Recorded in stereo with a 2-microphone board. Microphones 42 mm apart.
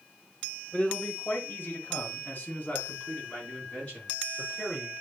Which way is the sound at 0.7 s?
35° left (ahead or behind).